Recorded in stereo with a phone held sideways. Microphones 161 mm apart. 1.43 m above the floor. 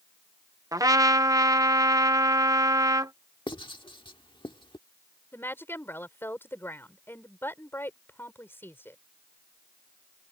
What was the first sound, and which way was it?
A trumpet, 20° right (ahead or behind).